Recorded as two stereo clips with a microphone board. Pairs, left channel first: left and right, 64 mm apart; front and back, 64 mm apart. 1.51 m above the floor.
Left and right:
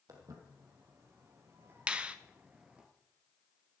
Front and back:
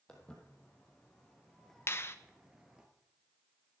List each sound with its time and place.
0.1 s footsteps: 75° right, 2.5 m; by 2.9 s 145° right, 1.5 m
1.9 s a finger snap: 25° right, 0.7 m